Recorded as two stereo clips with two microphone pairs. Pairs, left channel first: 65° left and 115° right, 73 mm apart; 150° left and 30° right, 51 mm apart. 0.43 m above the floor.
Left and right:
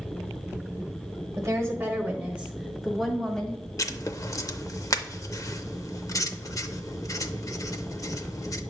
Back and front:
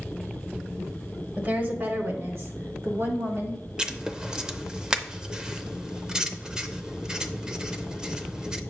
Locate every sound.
1.4 s a woman speaking: 80° right, 1.5 m; by 3.6 s 10° right, 2.5 m
3.8 s writing: 45° left, 0.6 m